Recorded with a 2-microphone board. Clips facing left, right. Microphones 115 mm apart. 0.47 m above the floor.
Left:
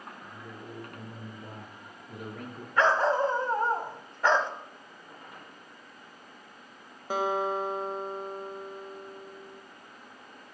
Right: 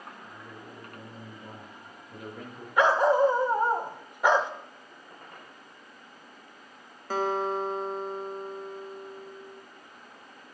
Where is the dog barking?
15° right (ahead or behind), 0.8 m.